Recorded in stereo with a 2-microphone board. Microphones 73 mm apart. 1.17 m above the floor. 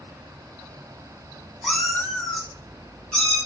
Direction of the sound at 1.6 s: Centre (ahead or behind).